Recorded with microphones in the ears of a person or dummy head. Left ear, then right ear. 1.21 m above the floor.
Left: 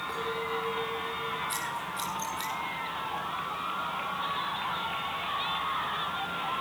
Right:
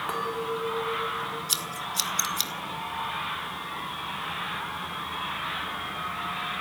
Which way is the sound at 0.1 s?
35° right (ahead or behind).